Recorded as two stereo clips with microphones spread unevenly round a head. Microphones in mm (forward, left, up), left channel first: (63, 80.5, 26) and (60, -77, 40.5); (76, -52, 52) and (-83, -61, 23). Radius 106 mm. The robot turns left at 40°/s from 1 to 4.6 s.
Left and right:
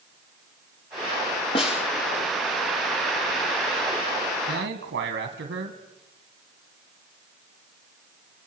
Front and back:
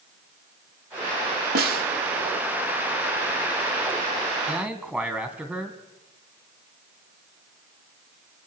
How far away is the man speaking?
About 2 m.